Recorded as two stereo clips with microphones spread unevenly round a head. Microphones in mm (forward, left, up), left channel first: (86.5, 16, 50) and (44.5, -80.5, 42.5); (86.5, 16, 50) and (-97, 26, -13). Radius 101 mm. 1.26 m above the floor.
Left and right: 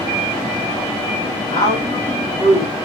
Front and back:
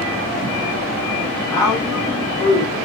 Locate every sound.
1.5 s a woman speaking: 75° left, 2.5 m; by 2.8 s 55° left, 2.5 m